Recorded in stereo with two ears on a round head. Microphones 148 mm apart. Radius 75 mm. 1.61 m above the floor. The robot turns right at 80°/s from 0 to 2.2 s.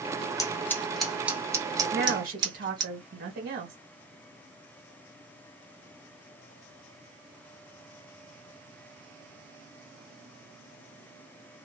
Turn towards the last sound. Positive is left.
turn(degrees=-55)  # may be behind; listen again after turning